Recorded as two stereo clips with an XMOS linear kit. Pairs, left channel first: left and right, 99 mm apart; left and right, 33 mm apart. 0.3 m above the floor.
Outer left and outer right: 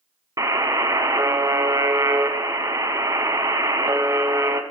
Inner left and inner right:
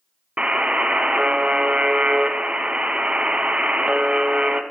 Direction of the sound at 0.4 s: 35° right (ahead or behind).